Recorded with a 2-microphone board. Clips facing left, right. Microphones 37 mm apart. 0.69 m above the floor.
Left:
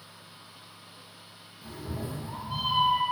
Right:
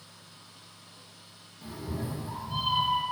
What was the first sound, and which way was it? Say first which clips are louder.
A cat meowing: right 1 dB; 60° right (ahead or behind).